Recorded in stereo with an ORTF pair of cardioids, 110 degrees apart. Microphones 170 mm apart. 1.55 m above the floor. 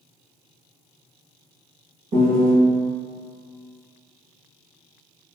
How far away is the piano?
About 0.9 m.